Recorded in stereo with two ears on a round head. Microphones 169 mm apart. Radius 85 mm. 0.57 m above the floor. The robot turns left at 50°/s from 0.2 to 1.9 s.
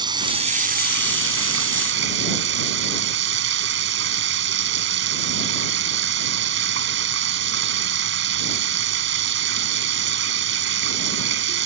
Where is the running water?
25° right; by 11.7 s 110° right.